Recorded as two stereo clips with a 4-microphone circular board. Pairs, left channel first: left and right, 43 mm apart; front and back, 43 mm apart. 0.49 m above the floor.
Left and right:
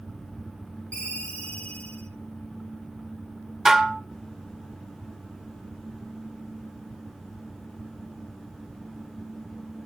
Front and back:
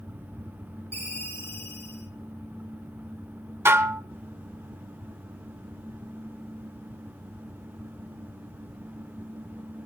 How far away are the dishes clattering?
About 0.8 m.